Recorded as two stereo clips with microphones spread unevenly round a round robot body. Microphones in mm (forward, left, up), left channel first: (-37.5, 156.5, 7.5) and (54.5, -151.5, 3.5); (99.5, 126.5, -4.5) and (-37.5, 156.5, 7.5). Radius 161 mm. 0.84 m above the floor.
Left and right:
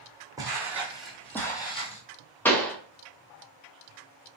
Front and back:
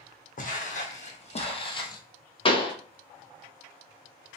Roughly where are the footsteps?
Ahead.